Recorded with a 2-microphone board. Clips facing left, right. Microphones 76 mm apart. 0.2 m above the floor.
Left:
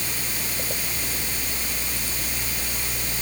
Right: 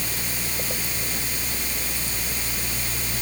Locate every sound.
Only background noise.